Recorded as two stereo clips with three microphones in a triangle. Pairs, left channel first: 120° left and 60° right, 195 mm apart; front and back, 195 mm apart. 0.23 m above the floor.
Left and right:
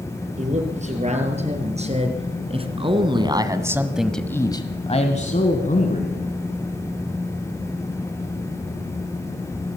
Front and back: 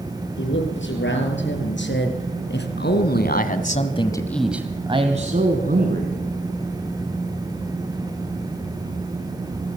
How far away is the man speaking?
About 6.5 m.